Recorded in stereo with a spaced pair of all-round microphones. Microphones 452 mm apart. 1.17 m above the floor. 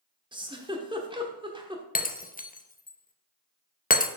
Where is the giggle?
10° right (ahead or behind), 1.0 m.